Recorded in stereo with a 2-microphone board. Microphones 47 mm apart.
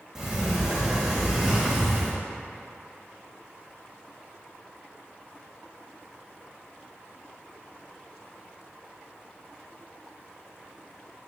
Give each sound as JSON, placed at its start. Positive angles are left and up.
{"t": 0.1, "sound": "a sliding door", "side_deg": -10, "distance_m": 1.7}